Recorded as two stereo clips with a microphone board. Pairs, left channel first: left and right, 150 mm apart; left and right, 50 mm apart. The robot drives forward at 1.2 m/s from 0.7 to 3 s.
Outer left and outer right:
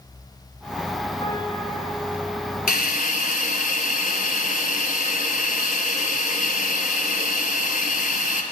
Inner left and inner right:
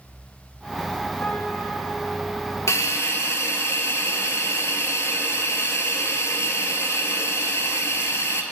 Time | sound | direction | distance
1.2 | a piano | 35° left (ahead or behind) | 1.8 m
2.7 | a hiss | 80° left | 0.7 m